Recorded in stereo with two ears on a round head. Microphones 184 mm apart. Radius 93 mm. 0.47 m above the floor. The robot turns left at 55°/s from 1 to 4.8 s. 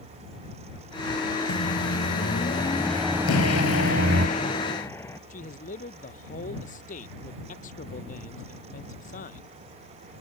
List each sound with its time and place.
1.5 s a microwave: 85° left; by 4.3 s 70° right
3.3 s an explosion: 95° left; by 5.2 s 10° left
5.3 s a man speaking: 40° left (ahead or behind)